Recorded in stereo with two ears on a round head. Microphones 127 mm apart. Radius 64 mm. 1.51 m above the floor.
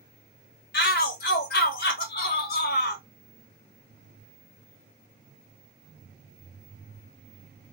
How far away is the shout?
About 1.4 m.